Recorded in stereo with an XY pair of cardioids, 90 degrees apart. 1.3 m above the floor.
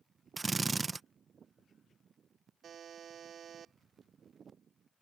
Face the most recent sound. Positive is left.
turn(degrees=-60)